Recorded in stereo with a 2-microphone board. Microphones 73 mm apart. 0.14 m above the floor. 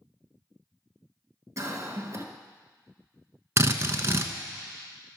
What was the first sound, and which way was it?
A cough, 45° right (ahead or behind).